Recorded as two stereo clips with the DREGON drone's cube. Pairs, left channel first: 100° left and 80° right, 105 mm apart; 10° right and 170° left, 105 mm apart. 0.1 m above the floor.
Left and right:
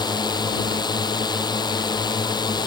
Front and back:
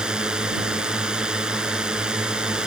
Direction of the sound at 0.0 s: 90° left.